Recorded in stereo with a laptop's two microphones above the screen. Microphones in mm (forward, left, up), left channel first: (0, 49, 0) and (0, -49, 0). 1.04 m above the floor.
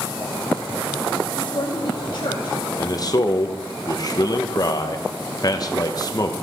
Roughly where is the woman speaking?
Left.